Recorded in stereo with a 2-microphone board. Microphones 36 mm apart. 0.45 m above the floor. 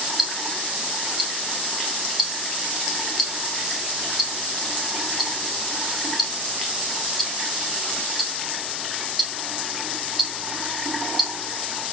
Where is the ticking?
5° right (ahead or behind), 2.5 m.